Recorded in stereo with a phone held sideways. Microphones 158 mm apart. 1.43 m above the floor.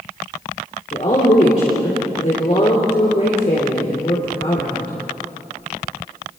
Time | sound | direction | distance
0.9 | a woman speaking | 45° left (ahead or behind) | 3.5 m